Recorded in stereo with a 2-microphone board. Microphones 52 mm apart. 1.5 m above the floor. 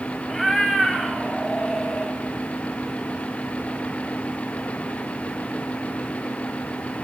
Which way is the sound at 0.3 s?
5° left (ahead or behind).